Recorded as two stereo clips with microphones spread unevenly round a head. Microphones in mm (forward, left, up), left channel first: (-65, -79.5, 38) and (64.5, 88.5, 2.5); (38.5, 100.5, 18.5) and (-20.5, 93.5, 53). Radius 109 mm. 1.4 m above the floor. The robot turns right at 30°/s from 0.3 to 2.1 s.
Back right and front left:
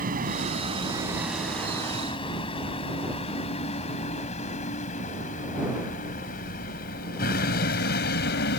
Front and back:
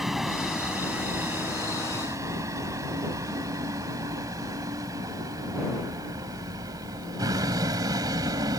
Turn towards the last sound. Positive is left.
turn(degrees=-170)